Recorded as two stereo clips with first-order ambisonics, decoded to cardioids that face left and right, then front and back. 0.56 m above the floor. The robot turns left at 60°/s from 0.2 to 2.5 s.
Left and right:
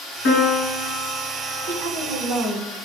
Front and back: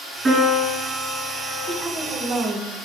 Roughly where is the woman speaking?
Right.